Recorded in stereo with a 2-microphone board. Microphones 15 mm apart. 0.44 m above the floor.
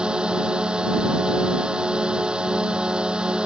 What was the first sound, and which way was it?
A drone, 85° right.